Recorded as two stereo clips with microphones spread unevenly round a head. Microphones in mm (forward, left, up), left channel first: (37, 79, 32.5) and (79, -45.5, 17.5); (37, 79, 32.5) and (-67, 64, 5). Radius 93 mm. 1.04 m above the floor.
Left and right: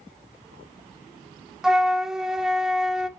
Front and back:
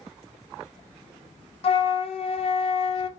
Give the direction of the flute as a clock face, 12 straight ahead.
11 o'clock.